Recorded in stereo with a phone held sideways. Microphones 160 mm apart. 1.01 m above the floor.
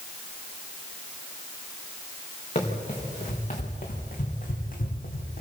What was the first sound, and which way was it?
Running footsteps, 45° left (ahead or behind).